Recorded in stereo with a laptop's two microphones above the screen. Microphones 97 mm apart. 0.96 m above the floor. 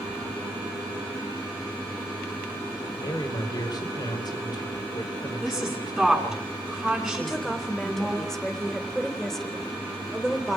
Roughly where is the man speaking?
Left.